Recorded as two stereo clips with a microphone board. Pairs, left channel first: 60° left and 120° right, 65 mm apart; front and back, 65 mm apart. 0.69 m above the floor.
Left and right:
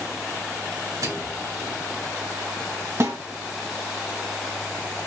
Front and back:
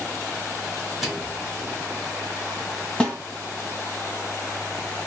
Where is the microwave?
95° right, 2.5 m.